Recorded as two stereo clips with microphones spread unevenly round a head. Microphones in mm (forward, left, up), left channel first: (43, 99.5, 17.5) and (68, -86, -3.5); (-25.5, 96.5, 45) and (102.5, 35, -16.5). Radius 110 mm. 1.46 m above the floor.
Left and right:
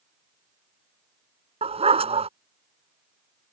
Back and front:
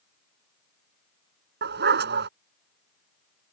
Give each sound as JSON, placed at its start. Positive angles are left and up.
{"t": 1.6, "sound": "a dog barking", "azimuth_deg": -25}